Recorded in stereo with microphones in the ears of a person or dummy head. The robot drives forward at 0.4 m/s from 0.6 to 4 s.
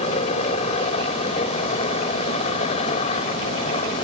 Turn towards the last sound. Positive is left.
turn(degrees=35)  # may be behind; listen again after turning